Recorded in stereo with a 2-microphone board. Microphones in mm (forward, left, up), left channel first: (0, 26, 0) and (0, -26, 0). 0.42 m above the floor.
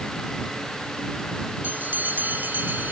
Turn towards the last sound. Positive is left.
turn(degrees=-40)  # may be behind; listen again after turning